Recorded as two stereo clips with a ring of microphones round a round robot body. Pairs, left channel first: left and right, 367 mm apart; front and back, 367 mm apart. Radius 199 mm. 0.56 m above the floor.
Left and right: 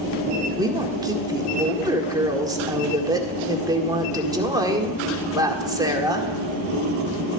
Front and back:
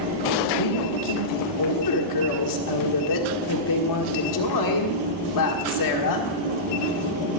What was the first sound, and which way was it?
A woman speaking, 15° right.